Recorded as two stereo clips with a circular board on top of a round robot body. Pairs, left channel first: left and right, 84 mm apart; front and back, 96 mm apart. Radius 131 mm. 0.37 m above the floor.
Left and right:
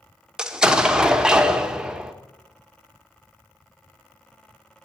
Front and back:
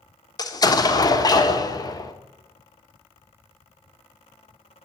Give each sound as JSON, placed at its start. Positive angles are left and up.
{"t": 0.4, "sound": "an explosion", "azimuth_deg": -15, "distance_m": 1.4}